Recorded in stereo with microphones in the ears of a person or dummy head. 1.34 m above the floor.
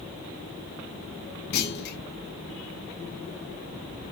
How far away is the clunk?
About 1.3 m.